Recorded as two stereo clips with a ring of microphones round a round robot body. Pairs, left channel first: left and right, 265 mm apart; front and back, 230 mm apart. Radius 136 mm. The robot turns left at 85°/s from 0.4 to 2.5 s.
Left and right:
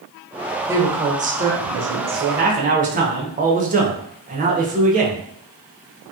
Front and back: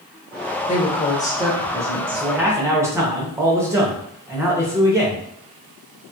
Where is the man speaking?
80° right, 0.9 m; by 5.2 s 110° right, 0.9 m.